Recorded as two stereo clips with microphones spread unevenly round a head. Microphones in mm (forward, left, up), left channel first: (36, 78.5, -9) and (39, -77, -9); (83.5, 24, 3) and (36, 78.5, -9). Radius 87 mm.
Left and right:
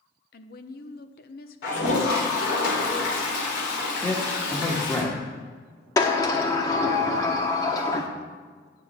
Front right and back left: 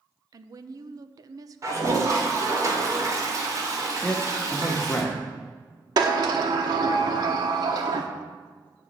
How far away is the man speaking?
About 1.5 m.